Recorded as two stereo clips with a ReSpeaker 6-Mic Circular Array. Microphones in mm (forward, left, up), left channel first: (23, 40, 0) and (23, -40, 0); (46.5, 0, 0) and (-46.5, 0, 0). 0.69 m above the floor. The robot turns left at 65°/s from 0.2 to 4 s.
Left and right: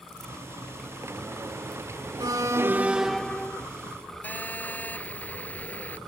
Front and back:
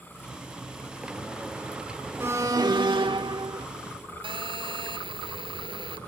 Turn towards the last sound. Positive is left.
turn(degrees=160)